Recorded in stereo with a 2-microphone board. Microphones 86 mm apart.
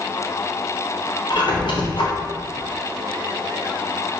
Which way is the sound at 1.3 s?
70° left (ahead or behind).